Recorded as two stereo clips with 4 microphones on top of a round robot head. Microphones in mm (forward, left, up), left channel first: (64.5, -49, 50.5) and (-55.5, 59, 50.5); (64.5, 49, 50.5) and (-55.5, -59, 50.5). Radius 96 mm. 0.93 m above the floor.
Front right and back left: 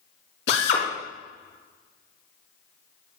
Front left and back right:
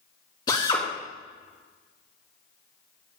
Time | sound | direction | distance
0.5 | a drill | 25° right | 4.5 m